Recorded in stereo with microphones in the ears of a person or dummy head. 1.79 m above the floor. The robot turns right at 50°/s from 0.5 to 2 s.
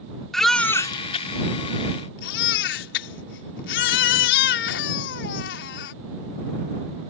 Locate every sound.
0.3 s a baby crying: 5° left; by 5.9 s 80° left